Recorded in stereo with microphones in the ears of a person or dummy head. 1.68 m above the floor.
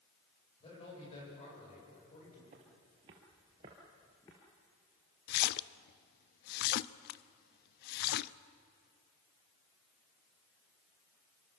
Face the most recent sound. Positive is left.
turn(degrees=55)  # may be behind; listen again after turning